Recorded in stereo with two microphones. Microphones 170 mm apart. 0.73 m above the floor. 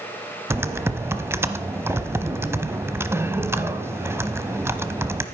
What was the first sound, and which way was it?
Typing on a keyboard, 15° right (ahead or behind).